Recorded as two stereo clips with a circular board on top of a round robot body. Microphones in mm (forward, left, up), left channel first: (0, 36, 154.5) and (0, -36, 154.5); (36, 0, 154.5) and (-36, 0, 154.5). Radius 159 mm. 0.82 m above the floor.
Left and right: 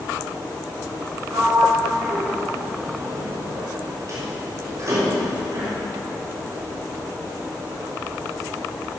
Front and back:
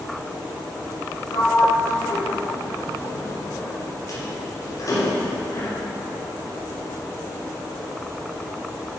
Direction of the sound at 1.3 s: 40° right.